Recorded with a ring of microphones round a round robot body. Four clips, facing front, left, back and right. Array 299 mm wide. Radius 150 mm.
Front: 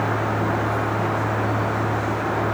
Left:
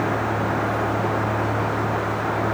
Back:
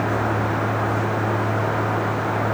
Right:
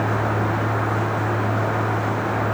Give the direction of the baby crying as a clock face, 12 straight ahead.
I don't hear a baby crying.